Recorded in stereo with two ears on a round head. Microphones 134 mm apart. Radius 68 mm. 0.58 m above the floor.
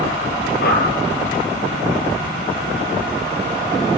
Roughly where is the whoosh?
Left.